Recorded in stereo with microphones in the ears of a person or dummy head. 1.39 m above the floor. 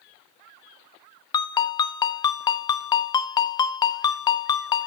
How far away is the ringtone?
About 0.7 m.